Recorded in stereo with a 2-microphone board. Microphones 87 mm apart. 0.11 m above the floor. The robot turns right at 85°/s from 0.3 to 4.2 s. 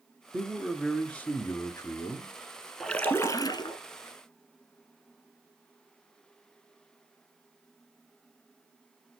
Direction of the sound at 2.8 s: 5° left.